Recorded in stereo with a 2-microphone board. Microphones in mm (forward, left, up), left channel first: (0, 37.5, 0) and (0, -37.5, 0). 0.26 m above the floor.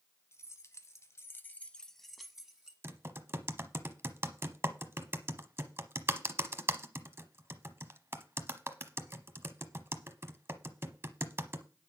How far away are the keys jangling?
About 1.5 m.